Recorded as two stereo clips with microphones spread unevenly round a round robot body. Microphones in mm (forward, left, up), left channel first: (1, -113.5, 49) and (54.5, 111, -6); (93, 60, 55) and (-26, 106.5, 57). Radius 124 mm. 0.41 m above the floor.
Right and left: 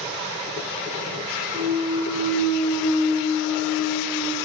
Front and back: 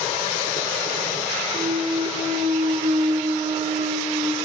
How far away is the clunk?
About 0.8 m.